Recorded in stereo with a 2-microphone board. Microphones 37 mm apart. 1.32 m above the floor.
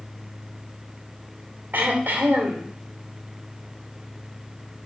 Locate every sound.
1.7 s throat clearing: 55° right (ahead or behind), 2.0 m